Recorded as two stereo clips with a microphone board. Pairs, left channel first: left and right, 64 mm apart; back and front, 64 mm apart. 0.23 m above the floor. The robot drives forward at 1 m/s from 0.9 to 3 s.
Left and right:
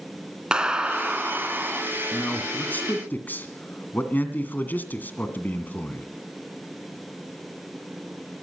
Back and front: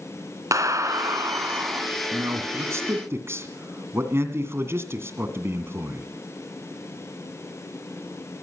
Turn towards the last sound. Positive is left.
turn(degrees=35)